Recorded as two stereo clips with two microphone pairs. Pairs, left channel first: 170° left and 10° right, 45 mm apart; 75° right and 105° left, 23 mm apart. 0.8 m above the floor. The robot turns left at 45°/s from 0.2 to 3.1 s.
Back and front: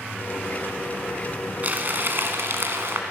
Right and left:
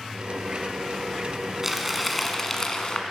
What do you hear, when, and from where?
1.6 s crumpling: 35° left, 1.3 m; by 3.0 s 30° right, 1.3 m